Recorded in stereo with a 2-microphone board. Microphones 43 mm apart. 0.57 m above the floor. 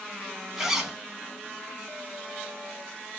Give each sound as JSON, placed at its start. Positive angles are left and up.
{"t": 0.6, "sound": "a zipper", "side_deg": -10, "distance_m": 0.8}